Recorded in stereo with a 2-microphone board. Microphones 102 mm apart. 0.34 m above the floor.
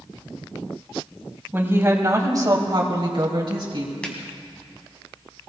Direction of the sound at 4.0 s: 10° left (ahead or behind).